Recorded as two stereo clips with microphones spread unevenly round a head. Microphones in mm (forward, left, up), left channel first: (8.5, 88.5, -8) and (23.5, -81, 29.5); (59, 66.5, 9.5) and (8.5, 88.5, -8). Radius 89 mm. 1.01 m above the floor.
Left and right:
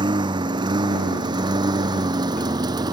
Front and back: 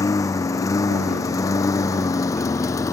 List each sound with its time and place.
0.0 s a lawn mower: 20° right